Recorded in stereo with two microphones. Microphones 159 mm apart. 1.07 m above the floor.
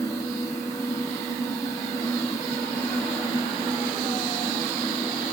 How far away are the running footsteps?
I don't hear running footsteps.